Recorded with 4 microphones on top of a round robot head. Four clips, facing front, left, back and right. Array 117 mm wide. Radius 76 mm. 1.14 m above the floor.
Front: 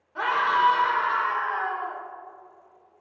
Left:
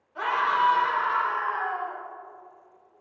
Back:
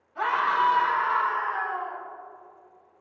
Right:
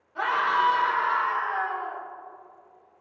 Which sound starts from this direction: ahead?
A scream, at 0.1 s.